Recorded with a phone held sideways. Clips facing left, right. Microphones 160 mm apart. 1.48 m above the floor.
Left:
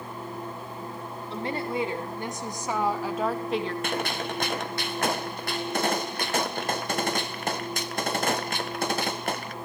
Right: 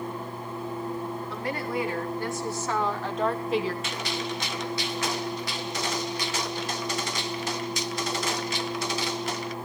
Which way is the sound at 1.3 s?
25° left (ahead or behind).